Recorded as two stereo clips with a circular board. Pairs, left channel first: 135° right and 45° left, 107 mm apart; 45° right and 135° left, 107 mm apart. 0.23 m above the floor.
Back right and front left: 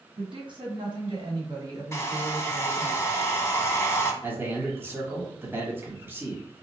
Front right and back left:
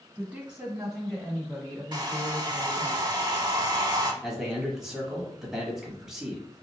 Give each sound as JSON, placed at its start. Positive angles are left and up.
{"t": 0.2, "sound": "a woman speaking", "azimuth_deg": 55, "distance_m": 2.5}
{"t": 1.9, "sound": "a hair dryer", "azimuth_deg": 170, "distance_m": 0.7}
{"t": 4.2, "sound": "a man speaking", "azimuth_deg": 55, "distance_m": 1.1}